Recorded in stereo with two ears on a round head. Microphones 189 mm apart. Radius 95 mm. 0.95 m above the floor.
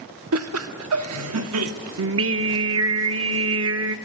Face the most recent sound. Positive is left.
turn(degrees=-70)  # may be behind; listen again after turning